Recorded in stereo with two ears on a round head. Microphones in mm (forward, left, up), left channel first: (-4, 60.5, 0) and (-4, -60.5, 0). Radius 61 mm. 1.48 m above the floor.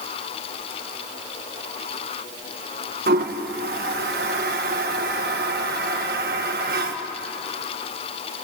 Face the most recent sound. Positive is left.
turn(degrees=-75)  # may be behind; listen again after turning